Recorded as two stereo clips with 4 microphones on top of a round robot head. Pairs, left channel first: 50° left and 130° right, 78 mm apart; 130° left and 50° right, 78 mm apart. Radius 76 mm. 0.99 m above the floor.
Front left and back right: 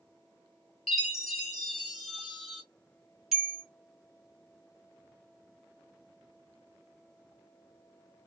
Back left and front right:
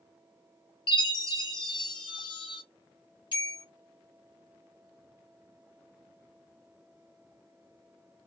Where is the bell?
145° left, 1.9 m.